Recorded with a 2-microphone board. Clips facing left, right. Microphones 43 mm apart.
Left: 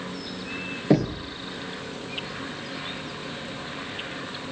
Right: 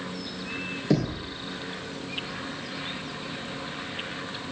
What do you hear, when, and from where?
0.9 s knocking: 25° left (ahead or behind), 2.5 m